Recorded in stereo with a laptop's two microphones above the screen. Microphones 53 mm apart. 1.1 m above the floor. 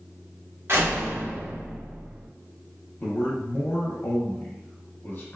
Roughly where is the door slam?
Right.